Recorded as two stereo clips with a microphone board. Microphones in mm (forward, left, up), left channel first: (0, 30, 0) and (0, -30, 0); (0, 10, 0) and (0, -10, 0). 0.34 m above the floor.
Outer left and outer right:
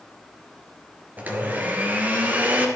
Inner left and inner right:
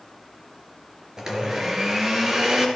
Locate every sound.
1.2 s a blender: 25° right (ahead or behind), 3 m